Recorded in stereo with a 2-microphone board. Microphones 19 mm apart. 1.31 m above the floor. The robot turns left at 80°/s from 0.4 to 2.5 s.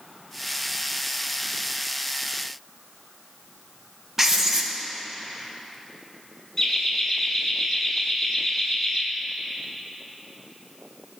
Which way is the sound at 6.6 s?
20° left (ahead or behind).